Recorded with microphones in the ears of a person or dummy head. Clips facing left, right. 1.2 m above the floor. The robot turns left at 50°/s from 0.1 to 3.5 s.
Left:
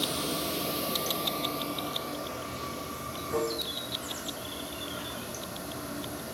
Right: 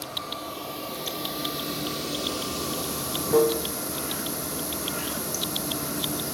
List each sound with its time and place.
0.0 s running water: 60° left, 0.8 m; by 6.3 s 110° right, 0.8 m